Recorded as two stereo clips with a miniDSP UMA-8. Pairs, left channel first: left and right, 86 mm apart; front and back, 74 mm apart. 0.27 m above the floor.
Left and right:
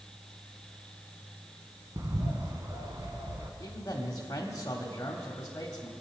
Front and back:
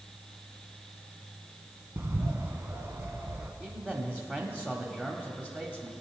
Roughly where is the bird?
Behind right.